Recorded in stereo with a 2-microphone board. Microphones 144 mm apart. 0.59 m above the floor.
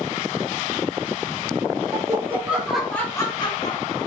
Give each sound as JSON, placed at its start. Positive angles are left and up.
{"t": 1.9, "sound": "laughter", "side_deg": -25, "distance_m": 1.8}